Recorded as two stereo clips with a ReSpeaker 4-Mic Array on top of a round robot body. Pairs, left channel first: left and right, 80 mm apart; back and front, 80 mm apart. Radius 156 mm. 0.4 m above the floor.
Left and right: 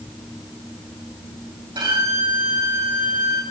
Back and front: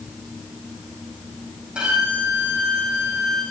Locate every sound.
1.8 s a violin: 80° right, 6.5 m